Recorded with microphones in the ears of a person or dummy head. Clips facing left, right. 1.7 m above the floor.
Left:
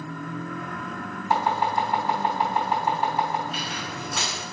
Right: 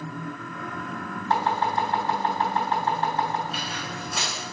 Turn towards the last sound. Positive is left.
turn(degrees=-5)  # may be behind; listen again after turning